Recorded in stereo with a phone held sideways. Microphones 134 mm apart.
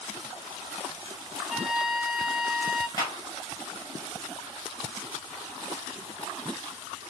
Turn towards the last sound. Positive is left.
turn(degrees=30)  # may be behind; listen again after turning